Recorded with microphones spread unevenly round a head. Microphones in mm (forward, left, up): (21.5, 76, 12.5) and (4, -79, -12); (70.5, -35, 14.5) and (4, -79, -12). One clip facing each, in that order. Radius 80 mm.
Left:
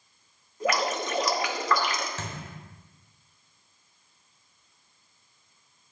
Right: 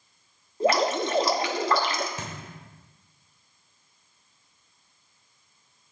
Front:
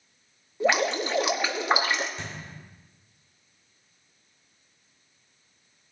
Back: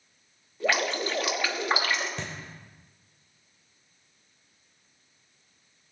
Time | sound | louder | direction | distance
0.6 | dripping | right 5 dB, front 3 dB | 40° right | 1.3 m
2.2 | a thud | even, back 1 dB | 175° right | 1.5 m